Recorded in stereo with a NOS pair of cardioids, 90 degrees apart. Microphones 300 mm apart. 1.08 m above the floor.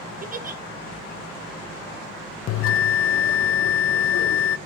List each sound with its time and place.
0.2 s a giggle: 30° right, 0.9 m
2.5 s a bell: 45° left, 0.5 m